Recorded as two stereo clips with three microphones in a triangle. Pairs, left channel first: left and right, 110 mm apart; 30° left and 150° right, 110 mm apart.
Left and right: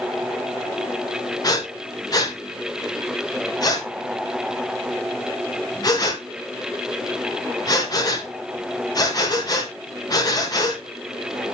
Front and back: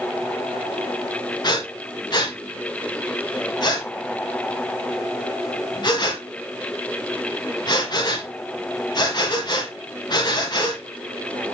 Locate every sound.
1.4 s breathing: 55° left, 1.5 m